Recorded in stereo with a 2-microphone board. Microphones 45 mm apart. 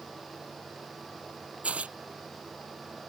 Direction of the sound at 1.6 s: 30° right (ahead or behind).